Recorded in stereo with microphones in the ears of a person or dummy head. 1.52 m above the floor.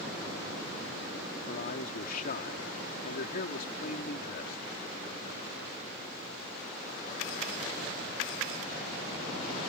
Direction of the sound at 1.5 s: 55° left (ahead or behind).